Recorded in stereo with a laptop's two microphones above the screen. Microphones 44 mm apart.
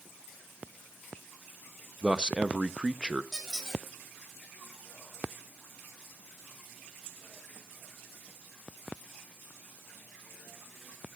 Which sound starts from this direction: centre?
A squeak, at 3.3 s.